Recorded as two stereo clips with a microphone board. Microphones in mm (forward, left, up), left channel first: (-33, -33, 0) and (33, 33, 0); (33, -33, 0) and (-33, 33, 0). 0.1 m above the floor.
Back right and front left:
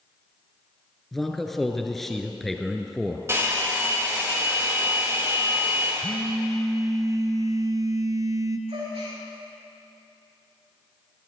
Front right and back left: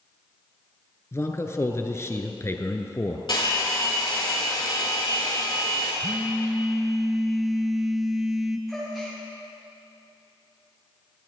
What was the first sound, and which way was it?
A man speaking, 50° right.